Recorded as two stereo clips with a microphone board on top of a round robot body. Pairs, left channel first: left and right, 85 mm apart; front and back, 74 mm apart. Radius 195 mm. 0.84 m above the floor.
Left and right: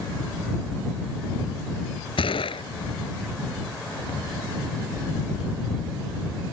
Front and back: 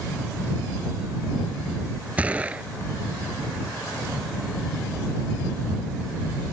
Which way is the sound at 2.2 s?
105° left.